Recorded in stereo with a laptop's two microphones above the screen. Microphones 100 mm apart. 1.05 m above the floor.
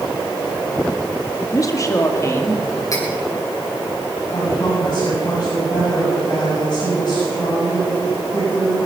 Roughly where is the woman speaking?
Left.